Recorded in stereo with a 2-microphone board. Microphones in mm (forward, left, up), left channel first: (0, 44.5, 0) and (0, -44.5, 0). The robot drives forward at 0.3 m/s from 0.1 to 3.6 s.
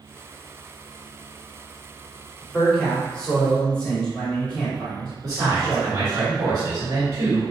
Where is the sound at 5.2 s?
45° right (ahead or behind), 1.7 m.